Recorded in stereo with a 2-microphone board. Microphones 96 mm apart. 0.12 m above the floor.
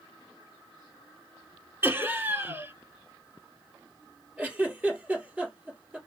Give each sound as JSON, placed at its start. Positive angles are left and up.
{"t": 1.8, "sound": "laughter", "side_deg": -20, "distance_m": 1.2}
{"t": 4.4, "sound": "a giggle", "side_deg": -15, "distance_m": 3.0}